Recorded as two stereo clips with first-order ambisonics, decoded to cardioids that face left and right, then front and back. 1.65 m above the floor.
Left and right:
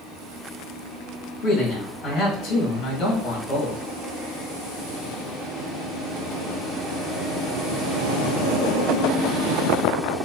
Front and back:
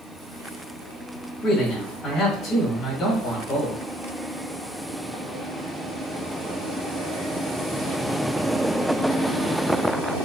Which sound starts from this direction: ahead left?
A man speaking, at 1.4 s.